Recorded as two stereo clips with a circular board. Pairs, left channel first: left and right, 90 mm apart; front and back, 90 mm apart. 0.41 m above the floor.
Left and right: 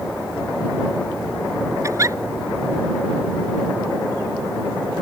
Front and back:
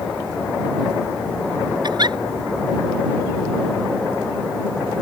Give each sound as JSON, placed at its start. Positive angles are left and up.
{"t": 1.8, "sound": "a giggle", "azimuth_deg": -145}